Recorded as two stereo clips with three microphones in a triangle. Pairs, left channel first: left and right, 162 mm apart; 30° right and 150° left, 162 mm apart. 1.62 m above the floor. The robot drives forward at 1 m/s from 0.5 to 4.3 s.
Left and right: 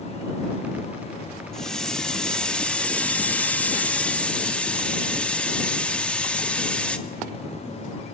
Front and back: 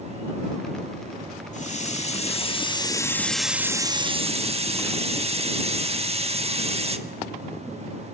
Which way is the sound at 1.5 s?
5° left.